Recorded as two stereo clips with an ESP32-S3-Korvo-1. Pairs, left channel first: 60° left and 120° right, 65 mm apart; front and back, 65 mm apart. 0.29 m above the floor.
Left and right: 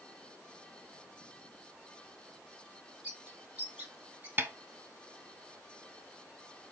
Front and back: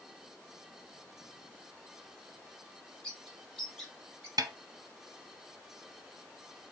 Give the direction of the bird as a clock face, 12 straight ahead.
2 o'clock.